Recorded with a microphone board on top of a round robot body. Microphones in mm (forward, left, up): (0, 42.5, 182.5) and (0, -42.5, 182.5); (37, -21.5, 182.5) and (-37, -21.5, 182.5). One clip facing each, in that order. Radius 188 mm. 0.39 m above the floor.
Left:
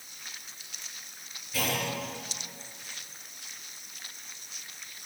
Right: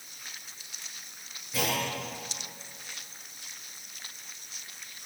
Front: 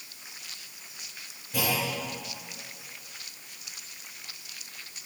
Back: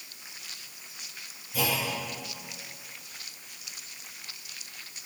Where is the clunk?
20° right, 9 m.